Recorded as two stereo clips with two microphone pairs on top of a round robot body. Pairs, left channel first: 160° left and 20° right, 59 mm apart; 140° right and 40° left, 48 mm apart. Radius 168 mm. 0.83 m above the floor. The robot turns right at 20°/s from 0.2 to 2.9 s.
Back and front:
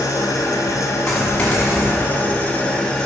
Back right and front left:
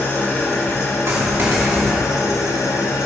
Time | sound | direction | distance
0.0 | an engine running | 175° left | 1.2 m
1.1 | a dropped coin | 75° left | 1.3 m